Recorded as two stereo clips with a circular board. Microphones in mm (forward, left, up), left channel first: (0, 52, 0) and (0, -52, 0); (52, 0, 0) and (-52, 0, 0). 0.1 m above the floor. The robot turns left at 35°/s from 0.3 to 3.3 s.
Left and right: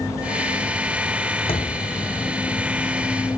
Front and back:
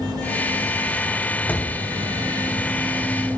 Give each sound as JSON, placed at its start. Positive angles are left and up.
{"t": 1.5, "sound": "a thud", "azimuth_deg": 75, "distance_m": 2.5}